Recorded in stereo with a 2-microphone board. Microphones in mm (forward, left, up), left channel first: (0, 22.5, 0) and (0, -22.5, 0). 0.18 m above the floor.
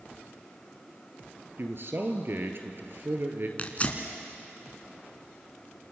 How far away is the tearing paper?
About 2 m.